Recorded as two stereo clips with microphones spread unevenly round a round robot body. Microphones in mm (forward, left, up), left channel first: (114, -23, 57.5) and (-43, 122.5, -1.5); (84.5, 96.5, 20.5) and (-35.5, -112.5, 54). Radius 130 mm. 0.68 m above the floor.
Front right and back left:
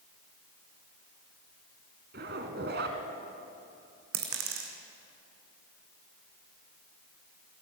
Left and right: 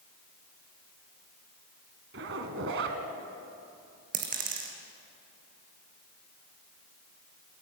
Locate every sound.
2.1 s a zipper: 165° right, 1.8 m
4.1 s a dropped coin: straight behind, 3 m